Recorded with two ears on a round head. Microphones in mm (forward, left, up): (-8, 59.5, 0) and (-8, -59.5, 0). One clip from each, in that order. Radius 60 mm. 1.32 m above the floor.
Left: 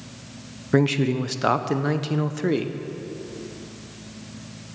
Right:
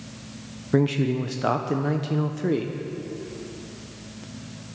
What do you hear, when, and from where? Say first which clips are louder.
0.7 s a man speaking: left 2 dB; 30° left (ahead or behind), 0.8 m